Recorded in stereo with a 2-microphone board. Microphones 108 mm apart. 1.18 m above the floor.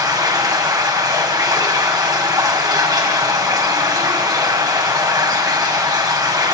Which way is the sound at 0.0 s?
35° right (ahead or behind).